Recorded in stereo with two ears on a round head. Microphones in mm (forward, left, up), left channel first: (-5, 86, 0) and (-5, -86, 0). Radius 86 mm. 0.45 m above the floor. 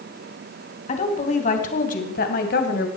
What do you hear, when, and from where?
0.9 s a woman speaking: 35° left (ahead or behind), 3 m; by 2.9 s 55° left (ahead or behind), 2.5 m